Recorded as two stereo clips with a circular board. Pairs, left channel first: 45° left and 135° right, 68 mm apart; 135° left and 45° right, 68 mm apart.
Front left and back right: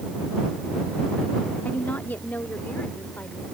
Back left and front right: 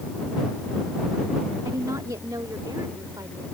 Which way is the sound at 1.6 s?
15° right.